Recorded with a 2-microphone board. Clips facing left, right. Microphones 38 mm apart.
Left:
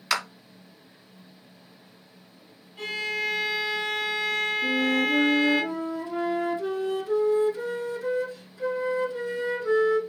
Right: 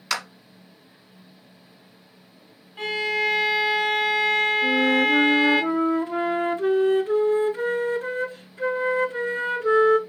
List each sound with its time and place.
0.1 s a clap: 5° left (ahead or behind), 1.0 m
2.8 s a violin: 40° right (ahead or behind), 2 m
4.6 s a flute: 50° right (ahead or behind), 0.7 m